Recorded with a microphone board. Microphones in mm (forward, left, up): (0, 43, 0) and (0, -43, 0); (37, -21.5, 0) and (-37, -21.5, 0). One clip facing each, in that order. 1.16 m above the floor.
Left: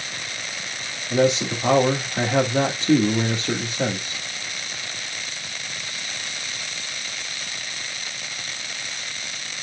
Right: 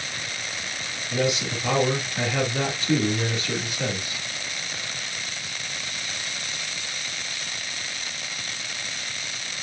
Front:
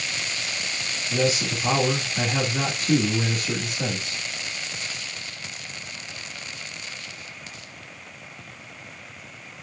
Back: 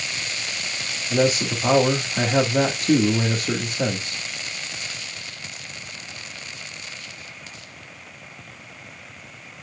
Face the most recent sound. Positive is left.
turn(degrees=135)